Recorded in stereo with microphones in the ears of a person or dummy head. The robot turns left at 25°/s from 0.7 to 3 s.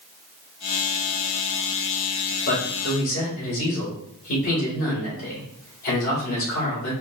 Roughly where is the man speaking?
Left.